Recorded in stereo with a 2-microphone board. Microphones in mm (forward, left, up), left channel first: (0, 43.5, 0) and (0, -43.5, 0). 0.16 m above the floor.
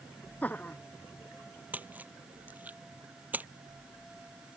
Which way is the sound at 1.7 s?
20° right (ahead or behind).